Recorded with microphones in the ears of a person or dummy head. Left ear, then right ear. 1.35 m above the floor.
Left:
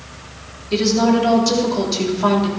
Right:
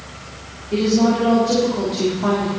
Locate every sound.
0.7 s a woman speaking: 65° left (ahead or behind), 3.5 m